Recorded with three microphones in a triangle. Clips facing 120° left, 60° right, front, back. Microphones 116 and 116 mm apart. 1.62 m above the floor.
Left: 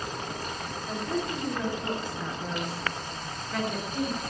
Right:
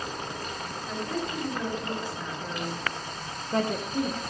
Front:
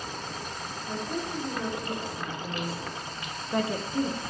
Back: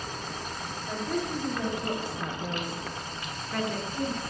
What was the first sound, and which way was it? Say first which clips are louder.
A woman speaking: left 2 dB, back 2 dB; straight behind.